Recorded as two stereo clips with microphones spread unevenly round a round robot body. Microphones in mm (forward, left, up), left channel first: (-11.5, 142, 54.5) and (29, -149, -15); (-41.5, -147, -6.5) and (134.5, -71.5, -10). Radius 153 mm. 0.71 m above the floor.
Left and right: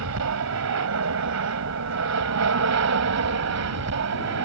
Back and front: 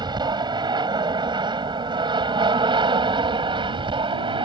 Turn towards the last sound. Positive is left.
turn(degrees=-40)